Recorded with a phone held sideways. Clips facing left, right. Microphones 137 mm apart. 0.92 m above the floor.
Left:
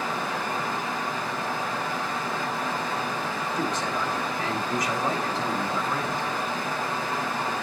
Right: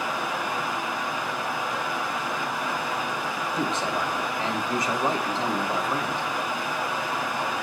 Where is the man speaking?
25° right (ahead or behind), 1.9 m.